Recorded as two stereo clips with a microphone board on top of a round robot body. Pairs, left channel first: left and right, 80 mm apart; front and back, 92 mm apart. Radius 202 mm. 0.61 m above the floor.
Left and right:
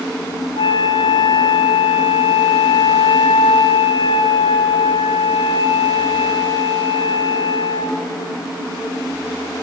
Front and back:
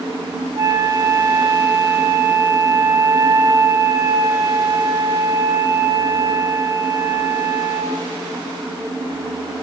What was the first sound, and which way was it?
A flute, 120° left.